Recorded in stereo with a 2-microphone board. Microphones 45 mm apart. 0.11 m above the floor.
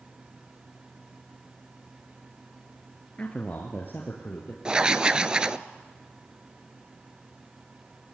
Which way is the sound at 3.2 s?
25° left (ahead or behind).